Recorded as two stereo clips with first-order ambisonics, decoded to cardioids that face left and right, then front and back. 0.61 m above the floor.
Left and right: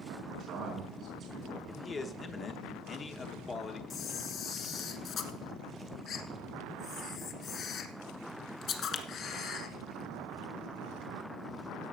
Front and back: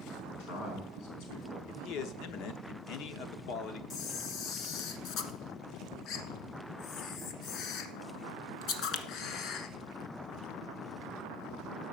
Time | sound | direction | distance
0.3 | a man speaking | 30° right | 5 m
1.7 | a man speaking | 25° left | 1.0 m
3.9 | a camera shutter | 40° left | 1.1 m